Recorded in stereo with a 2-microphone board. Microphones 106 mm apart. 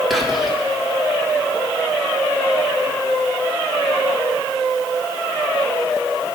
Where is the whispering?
Centre (ahead or behind), 2 m.